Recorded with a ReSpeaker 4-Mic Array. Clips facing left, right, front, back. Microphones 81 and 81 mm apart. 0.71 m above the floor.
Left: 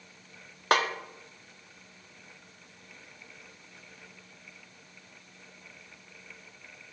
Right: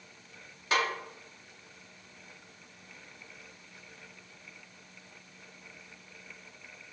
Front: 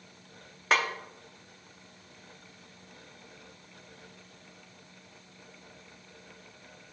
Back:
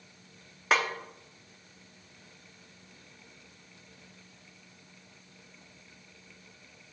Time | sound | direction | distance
0.7 | a snare drum | 90° left | 0.9 m